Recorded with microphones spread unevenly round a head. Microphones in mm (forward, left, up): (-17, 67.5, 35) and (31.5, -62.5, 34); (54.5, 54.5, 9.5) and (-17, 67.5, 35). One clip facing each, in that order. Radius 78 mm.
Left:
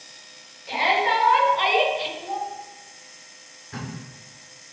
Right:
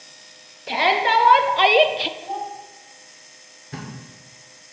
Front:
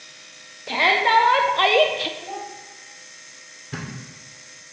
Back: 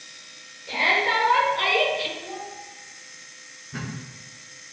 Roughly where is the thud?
Ahead.